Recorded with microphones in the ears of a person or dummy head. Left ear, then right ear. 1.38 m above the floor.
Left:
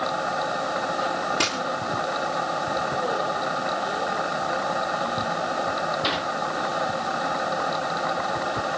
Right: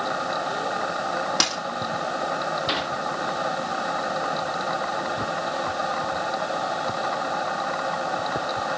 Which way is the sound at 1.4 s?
40° right (ahead or behind).